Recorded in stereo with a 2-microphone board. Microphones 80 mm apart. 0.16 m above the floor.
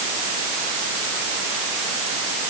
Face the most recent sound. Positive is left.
No sound to turn to.